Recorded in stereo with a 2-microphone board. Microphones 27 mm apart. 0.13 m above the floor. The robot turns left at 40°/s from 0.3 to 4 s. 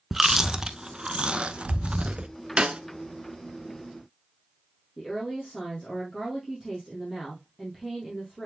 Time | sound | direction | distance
0.1 | chewing | 15° right (ahead or behind) | 0.5 m
2.6 | a snare drum | 30° right (ahead or behind) | 0.5 m
5.0 | a woman speaking | 5° right (ahead or behind) | 3.5 m